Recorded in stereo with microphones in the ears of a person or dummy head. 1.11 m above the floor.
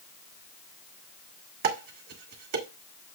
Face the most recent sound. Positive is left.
turn(degrees=-60)  # may be behind; listen again after turning